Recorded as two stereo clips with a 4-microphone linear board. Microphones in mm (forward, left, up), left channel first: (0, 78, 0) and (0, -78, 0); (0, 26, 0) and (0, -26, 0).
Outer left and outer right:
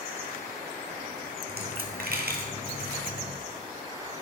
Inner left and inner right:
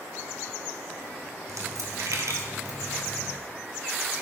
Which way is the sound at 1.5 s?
85° right.